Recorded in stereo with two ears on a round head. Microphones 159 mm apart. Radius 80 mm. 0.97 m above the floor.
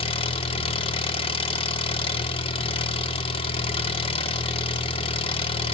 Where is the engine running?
30° left (ahead or behind), 1.1 m.